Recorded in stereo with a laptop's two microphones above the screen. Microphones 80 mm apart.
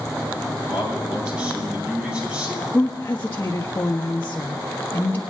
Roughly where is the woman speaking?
Left.